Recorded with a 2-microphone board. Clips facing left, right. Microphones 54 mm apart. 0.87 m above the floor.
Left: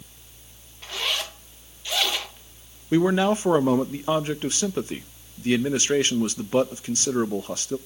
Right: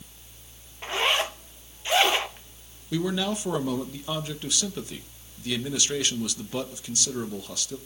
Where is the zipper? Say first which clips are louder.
Right 4 dB; 30° right (ahead or behind), 0.9 m.